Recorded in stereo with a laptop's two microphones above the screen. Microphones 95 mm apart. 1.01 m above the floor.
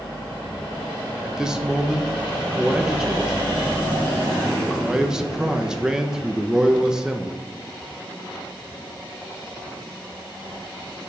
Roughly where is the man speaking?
Centre.